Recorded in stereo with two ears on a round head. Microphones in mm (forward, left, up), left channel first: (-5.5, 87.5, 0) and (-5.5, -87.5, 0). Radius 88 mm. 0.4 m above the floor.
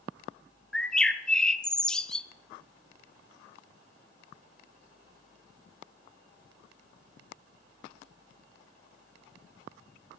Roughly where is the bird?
Centre.